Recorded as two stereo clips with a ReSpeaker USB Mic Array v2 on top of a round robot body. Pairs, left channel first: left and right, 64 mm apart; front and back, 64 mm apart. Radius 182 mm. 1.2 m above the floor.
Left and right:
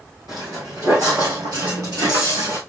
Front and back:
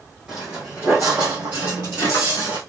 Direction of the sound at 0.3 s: 110° right.